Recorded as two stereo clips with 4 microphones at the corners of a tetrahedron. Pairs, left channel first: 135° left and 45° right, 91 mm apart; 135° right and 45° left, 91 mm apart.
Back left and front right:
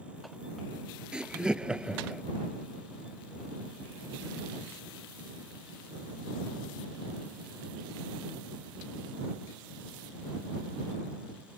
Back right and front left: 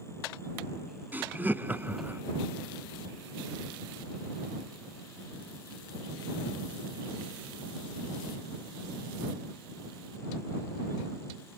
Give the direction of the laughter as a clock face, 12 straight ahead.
11 o'clock.